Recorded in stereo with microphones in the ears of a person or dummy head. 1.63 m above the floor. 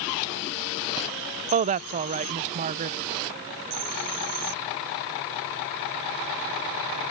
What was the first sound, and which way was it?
A woman speaking, 40° right (ahead or behind).